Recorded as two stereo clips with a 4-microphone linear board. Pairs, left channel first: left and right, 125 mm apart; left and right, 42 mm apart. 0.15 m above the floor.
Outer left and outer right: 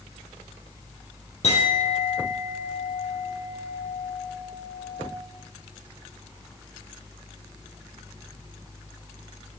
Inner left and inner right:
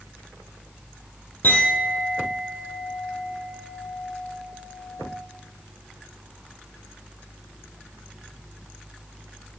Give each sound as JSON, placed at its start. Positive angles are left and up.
{"t": 1.4, "sound": "a clink", "side_deg": 60, "distance_m": 2.5}